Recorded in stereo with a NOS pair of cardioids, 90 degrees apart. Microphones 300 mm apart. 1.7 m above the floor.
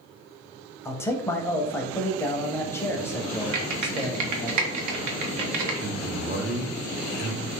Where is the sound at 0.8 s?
10° left, 0.6 m.